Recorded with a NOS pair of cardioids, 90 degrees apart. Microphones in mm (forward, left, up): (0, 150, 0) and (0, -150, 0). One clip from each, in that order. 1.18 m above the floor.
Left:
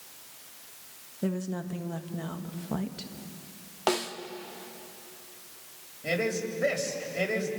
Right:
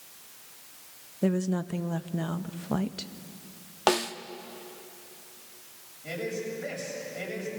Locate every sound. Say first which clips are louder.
1.2 s a woman speaking: right 5 dB; 30° right, 1.3 m
3.9 s a snare drum: right 3 dB; 25° right, 1.2 m
6.0 s a man speaking: left 4 dB; 55° left, 7 m